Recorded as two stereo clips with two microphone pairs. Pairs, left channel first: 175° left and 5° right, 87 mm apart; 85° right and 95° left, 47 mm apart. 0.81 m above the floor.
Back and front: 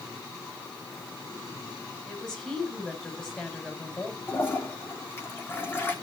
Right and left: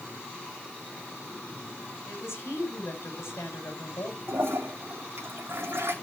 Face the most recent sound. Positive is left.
turn(degrees=115)